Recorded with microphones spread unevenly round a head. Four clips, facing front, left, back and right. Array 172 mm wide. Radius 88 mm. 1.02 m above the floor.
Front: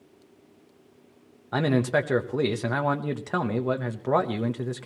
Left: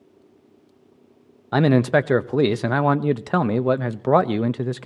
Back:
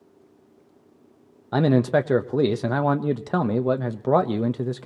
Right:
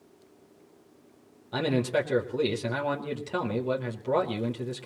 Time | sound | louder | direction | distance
1.5 | a man speaking | left 9 dB, back 4 dB | 120° left | 0.9 m